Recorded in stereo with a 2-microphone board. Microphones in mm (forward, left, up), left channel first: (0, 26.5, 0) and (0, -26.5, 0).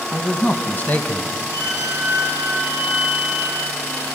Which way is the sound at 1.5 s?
80° left.